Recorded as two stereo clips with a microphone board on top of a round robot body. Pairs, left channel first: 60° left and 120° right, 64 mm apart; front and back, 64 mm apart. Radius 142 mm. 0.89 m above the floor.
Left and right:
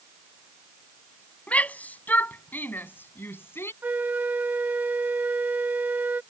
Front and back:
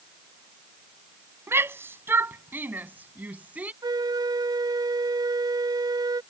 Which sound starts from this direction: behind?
A flute, at 3.8 s.